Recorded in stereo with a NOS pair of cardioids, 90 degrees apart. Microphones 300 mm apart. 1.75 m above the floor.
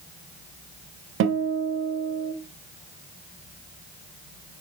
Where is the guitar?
40° right, 0.6 m.